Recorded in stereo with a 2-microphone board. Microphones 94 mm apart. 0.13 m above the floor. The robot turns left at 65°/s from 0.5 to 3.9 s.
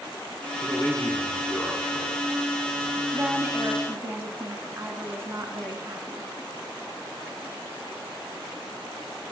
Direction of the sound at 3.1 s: 15° right (ahead or behind).